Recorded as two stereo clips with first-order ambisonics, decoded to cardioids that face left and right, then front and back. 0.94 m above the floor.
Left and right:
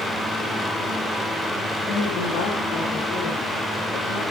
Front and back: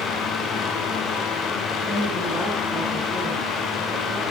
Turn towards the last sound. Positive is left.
turn(degrees=110)